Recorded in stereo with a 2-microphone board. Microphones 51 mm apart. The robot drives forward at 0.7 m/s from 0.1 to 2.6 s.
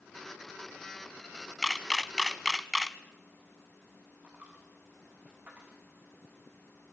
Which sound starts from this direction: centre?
A camera shutter, at 1.6 s.